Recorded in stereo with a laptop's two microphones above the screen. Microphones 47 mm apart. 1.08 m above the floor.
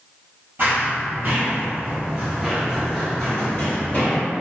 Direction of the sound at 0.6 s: 40° right (ahead or behind).